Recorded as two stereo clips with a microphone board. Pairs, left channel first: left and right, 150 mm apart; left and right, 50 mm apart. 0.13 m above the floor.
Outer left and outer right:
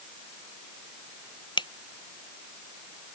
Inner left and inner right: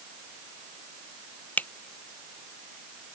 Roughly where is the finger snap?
Left.